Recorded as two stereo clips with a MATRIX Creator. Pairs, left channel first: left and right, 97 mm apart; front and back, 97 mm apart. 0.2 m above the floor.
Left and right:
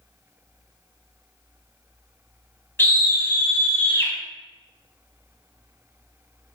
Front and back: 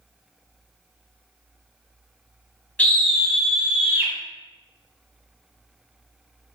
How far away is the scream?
About 1.0 m.